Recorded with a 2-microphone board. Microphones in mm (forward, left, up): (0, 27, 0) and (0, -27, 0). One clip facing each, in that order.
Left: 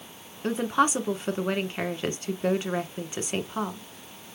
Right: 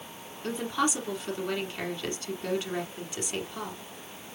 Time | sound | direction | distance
0.4 | a woman speaking | 30° left (ahead or behind) | 1.2 m